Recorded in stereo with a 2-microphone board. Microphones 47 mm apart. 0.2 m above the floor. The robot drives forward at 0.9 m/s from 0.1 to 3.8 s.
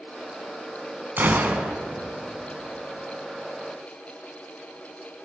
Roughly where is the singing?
I don't hear singing.